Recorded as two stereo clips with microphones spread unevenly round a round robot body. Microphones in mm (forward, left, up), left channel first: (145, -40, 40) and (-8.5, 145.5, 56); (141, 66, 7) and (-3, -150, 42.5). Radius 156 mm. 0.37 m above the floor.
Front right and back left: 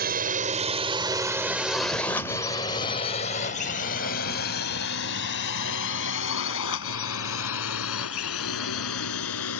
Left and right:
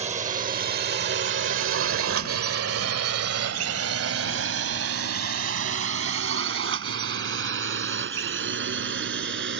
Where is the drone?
170° left; by 9.6 s 80° right.